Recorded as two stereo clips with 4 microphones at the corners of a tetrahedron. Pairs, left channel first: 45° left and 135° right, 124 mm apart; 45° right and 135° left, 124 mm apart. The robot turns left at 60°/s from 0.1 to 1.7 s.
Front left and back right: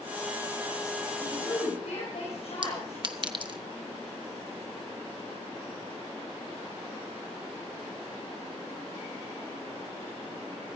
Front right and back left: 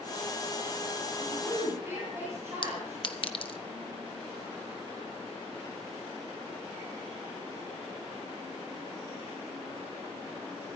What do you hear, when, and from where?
1.2 s a woman speaking: 100° left, 6.5 m; by 3.3 s 70° left, 6.5 m
2.6 s a clink: 85° right, 1.0 m